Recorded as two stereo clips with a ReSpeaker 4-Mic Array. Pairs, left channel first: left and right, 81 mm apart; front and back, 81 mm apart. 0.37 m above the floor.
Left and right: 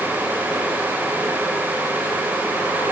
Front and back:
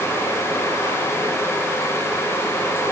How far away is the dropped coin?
No dropped coin in this recording.